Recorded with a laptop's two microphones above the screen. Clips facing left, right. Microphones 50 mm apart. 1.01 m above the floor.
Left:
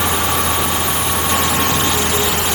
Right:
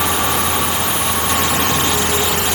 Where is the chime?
No chime in this recording.